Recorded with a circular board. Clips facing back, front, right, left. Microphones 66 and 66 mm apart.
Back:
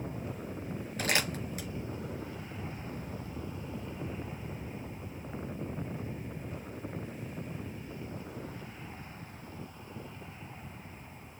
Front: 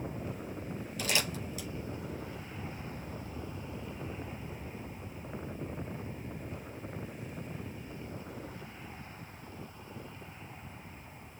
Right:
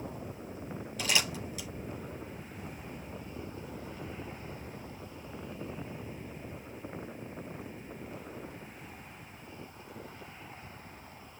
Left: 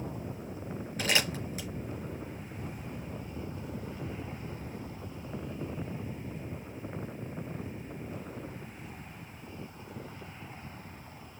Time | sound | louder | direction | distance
1.0 | crumpling | back 3 dB, left 2 dB | 140° left | 4 m